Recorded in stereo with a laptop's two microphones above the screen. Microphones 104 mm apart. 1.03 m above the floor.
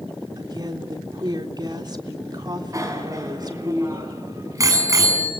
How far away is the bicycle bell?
About 7 m.